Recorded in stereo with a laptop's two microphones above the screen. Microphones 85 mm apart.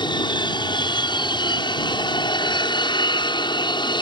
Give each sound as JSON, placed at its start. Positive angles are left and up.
{"t": 0.0, "sound": "an aircraft", "side_deg": 65}